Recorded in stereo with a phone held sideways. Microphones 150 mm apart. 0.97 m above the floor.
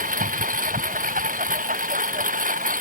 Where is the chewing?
No chewing in this recording.